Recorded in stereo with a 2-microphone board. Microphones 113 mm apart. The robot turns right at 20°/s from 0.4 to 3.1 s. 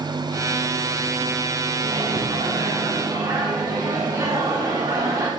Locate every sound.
1.8 s a microwave: 55° right (ahead or behind), 1.2 m; by 5.3 s 30° right (ahead or behind), 1.2 m